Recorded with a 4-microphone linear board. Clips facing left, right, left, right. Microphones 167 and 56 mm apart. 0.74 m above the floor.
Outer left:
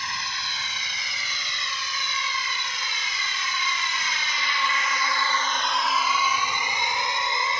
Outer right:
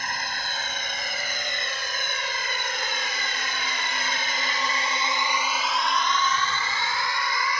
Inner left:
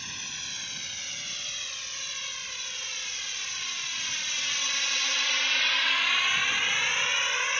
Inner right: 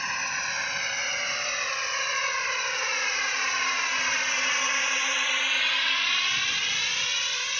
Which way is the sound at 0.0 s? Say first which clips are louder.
Outer right 2 dB, inner right 11 dB; 55° right (ahead or behind).